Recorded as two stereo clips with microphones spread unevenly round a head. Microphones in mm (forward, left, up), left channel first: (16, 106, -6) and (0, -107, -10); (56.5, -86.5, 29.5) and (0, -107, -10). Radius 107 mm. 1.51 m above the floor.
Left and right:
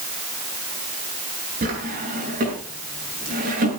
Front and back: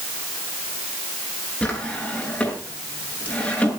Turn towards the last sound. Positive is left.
turn(degrees=-45)